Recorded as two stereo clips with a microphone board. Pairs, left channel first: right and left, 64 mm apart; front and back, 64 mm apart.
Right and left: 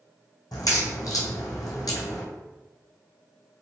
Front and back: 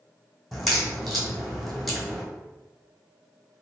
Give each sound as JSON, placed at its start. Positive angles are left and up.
{"t": 0.5, "sound": "a crack", "azimuth_deg": -90, "distance_m": 1.3}